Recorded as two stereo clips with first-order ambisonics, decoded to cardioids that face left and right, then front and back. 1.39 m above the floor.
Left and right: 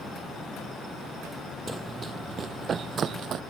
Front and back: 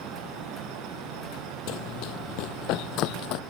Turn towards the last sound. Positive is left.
turn(degrees=-35)